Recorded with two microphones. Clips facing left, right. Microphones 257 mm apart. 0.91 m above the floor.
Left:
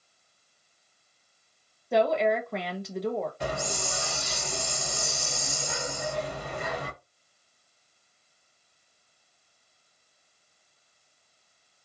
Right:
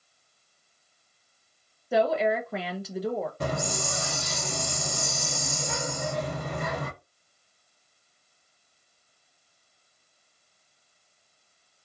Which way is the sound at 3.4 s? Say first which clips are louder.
Right 2 dB; 55° right (ahead or behind).